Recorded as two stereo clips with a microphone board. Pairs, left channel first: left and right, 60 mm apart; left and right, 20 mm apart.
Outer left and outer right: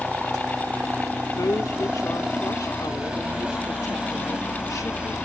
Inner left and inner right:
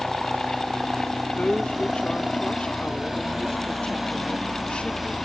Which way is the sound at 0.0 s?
15° right (ahead or behind).